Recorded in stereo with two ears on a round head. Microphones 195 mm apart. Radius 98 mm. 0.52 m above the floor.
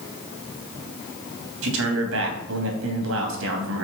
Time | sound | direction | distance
1.6 | a man speaking | 70° right (ahead or behind) | 3 m